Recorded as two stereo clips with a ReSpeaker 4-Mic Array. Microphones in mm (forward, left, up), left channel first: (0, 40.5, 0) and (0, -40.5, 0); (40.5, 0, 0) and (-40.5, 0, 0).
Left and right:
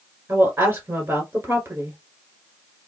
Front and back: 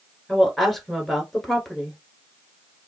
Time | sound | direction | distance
0.3 | a woman speaking | 85° right | 1.3 m